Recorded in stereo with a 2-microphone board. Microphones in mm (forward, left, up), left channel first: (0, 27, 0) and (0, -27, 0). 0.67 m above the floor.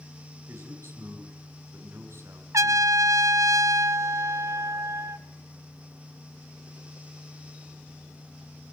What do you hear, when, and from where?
0.5 s a man speaking: 50° right (ahead or behind), 5 m
2.5 s a trumpet: 70° right (ahead or behind), 0.6 m